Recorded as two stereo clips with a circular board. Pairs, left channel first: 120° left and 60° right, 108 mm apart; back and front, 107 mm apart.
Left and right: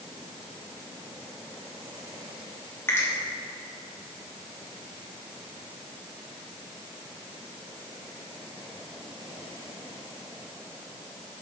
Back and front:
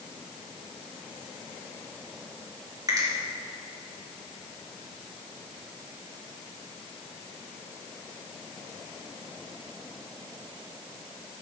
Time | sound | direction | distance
2.9 | a finger snap | 55° left | 3 m